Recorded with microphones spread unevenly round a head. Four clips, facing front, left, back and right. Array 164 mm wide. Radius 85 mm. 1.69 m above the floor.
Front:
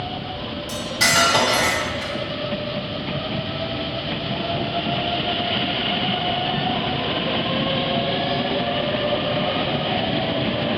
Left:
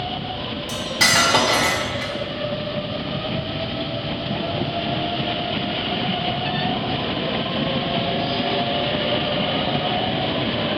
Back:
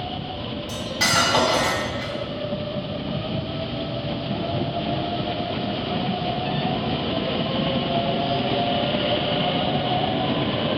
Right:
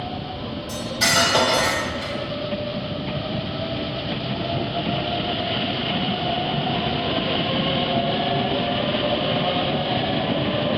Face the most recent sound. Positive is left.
turn(degrees=75)